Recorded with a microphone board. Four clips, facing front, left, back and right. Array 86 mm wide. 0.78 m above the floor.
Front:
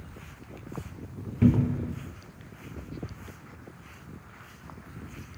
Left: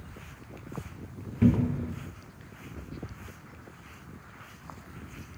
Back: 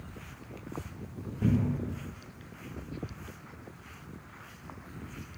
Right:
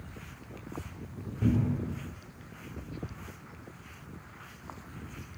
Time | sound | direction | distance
1.4 | a cupboard door | 35° left | 0.7 m